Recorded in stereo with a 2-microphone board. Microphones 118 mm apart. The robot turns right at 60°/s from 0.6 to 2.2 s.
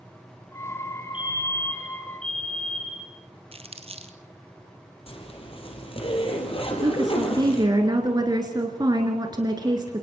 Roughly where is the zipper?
Left.